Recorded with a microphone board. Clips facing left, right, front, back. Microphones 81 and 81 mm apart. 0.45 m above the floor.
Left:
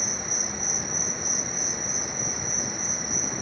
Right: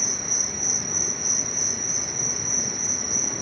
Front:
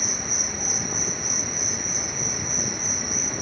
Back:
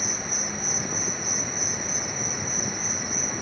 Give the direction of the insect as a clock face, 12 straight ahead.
2 o'clock.